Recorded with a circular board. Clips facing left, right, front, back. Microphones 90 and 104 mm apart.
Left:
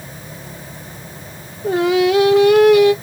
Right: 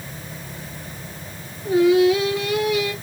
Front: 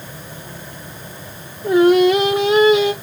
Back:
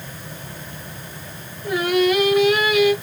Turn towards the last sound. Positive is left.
turn(degrees=60)